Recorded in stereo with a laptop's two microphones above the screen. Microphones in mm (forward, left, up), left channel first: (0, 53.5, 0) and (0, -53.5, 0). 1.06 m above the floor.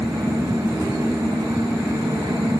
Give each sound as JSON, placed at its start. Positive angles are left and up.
{"t": 0.0, "sound": "a fan", "side_deg": -30, "distance_m": 0.8}